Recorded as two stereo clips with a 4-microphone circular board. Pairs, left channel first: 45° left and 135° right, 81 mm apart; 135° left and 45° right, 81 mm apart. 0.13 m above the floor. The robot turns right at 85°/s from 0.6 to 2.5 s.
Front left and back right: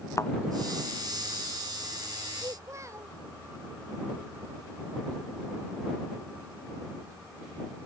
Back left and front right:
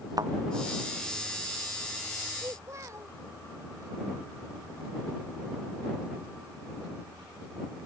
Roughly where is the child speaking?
Right.